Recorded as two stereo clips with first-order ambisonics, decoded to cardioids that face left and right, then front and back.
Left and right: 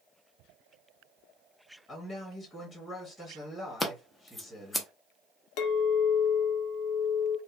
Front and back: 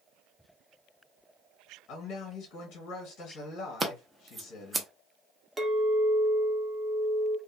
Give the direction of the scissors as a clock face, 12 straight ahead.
7 o'clock.